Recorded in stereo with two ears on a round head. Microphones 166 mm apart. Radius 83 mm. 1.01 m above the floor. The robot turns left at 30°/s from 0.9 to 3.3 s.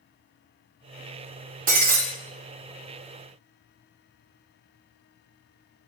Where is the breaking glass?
45° right (ahead or behind), 1.4 m; by 2.0 s 55° right (ahead or behind), 1.4 m.